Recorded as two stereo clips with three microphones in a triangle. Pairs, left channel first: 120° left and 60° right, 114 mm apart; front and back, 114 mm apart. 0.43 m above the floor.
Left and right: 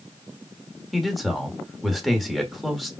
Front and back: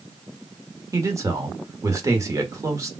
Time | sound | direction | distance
0.9 | a man speaking | 150° right | 1.2 m